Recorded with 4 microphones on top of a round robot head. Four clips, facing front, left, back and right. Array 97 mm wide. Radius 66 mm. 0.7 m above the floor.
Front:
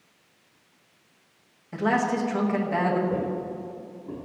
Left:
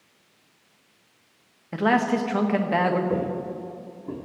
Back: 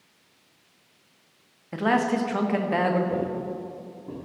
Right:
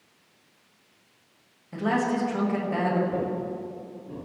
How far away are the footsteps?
About 2 m.